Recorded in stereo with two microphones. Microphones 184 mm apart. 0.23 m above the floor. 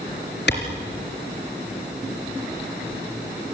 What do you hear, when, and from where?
0.5 s a clap: 70° left (ahead or behind), 3.5 m